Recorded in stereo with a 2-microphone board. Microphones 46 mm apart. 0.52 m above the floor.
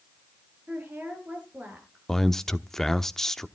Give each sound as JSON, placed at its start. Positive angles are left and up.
{"t": 0.7, "sound": "a woman speaking", "side_deg": -35, "distance_m": 8.5}
{"t": 2.1, "sound": "a man speaking", "side_deg": 10, "distance_m": 0.9}